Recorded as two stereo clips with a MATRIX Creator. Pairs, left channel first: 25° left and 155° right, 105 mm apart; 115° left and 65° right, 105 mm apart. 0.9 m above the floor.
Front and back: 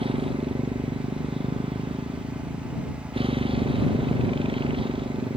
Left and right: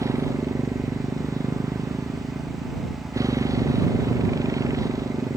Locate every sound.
0.0 s a motorcycle: 125° right